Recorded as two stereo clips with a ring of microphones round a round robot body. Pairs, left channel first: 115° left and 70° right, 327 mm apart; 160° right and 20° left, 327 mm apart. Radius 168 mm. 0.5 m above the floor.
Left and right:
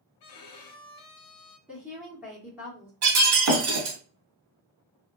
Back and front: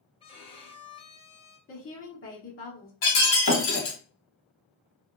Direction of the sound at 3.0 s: 110° right.